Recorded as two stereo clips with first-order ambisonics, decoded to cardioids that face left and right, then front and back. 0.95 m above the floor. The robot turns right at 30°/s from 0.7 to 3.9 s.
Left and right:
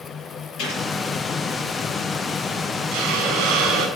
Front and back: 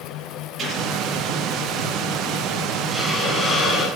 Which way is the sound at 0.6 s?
120° left.